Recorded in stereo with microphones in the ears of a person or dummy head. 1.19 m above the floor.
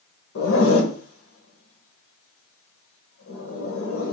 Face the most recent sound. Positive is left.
turn(degrees=65)  # may be behind; listen again after turning